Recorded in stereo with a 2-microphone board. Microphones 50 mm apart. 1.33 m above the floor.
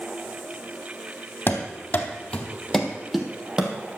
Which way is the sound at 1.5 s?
45° left (ahead or behind).